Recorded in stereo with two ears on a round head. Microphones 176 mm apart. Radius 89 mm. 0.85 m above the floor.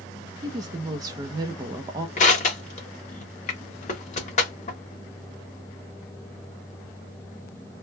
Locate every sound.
0.4 s a woman speaking: 20° right (ahead or behind), 0.6 m
2.2 s crushing: 40° left (ahead or behind), 1.2 m